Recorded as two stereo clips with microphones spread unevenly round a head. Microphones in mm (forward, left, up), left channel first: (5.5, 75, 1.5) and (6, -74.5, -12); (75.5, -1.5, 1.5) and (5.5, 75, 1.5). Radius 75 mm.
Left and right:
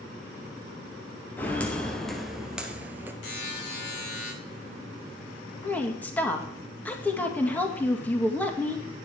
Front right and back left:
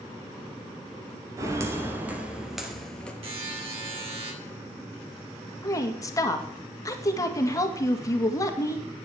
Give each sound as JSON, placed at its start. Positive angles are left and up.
{"t": 1.4, "sound": "footsteps", "azimuth_deg": 145, "distance_m": 1.7}
{"t": 3.2, "sound": "a buzzer", "azimuth_deg": 105, "distance_m": 5.5}
{"t": 5.6, "sound": "a woman speaking", "azimuth_deg": 10, "distance_m": 2.0}